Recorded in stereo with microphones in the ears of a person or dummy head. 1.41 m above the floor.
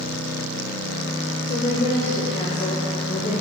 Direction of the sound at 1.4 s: 40° left (ahead or behind).